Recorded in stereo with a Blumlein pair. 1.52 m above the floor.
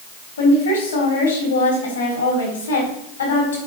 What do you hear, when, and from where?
0.4 s a woman speaking: 60° left, 3.5 m